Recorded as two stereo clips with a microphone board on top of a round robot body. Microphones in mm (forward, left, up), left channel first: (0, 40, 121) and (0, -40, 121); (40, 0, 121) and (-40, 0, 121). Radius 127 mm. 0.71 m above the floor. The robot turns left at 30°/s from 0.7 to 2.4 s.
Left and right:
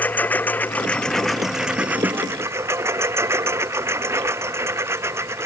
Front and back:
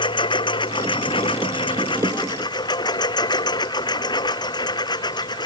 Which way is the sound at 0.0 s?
20° left.